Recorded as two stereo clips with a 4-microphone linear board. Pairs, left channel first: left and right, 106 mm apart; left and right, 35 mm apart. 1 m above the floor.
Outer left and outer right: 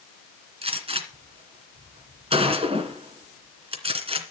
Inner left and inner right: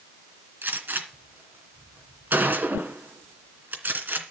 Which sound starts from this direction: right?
A gunshot, at 0.6 s.